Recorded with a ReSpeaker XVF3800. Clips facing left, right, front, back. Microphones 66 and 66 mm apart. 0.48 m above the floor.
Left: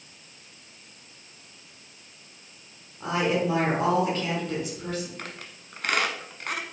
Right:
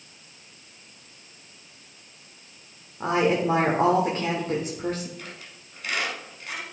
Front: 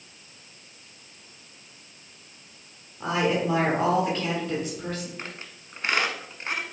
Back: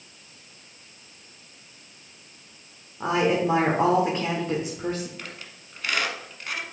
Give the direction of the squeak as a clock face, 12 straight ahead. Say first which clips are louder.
Left 2 dB, front 1 dB; 10 o'clock.